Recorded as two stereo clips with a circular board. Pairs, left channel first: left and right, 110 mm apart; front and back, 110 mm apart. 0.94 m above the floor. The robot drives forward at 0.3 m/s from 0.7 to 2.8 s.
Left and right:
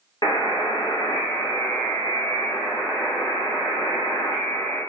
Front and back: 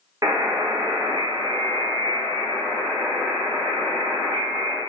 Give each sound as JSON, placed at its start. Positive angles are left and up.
{"t": 0.2, "sound": "a buzzer", "azimuth_deg": 130, "distance_m": 0.8}